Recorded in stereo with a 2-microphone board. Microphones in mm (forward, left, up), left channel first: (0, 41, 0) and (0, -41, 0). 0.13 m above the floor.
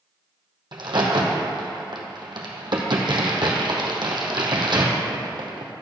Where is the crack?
70° right (ahead or behind), 1.6 m.